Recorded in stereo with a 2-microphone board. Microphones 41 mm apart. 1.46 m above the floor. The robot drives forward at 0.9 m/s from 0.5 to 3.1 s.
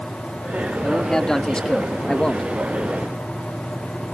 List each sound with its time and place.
0.8 s a man speaking: 10° left (ahead or behind); by 2.5 s 20° left (ahead or behind)